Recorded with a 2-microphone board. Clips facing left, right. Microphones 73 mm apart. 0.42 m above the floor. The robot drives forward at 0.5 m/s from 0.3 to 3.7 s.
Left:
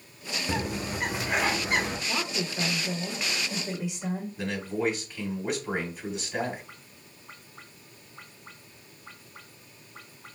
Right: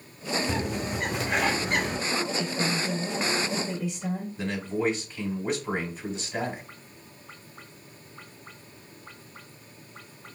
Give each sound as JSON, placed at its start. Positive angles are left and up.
{"t": 0.5, "sound": "a bird", "side_deg": 5, "distance_m": 0.8}
{"t": 2.1, "sound": "a woman speaking", "side_deg": 20, "distance_m": 0.7}
{"t": 4.4, "sound": "a man speaking", "side_deg": 10, "distance_m": 2.5}